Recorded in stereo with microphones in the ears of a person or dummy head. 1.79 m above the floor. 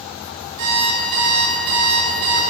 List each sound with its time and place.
0.6 s an alarm clock: 55° right (ahead or behind), 1.6 m